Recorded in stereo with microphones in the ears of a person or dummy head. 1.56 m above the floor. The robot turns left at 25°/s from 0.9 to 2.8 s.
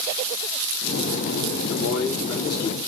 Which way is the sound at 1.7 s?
45° left (ahead or behind).